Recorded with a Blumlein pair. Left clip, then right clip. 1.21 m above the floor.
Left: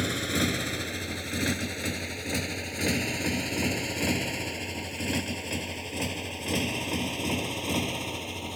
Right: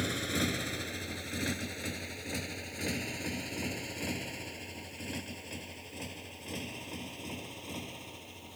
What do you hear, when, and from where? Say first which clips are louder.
0.0 s a motorcycle: left 5 dB; 15° left; by 8.6 s 35° left